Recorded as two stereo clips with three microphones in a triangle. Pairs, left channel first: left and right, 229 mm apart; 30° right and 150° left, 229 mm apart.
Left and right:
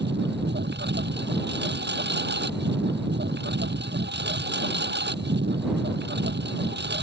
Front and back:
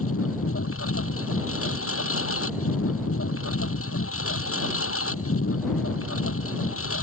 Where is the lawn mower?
50° right.